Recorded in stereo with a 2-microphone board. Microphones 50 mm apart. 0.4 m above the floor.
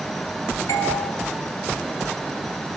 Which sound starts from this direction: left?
A doorbell, at 0.7 s.